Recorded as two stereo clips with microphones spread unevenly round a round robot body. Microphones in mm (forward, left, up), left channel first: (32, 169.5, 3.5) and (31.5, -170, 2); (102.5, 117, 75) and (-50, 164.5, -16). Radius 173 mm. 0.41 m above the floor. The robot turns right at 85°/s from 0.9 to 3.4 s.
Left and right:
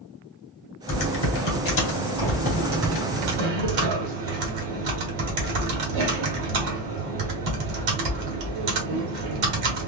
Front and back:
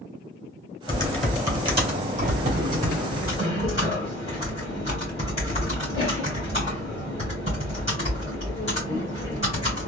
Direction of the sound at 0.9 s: 55° left.